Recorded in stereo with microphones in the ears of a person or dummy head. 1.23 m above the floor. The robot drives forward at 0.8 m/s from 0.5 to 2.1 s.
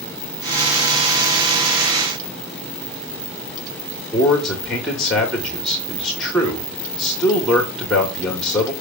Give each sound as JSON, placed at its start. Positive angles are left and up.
{"t": 4.1, "sound": "a man speaking", "side_deg": 0, "distance_m": 1.9}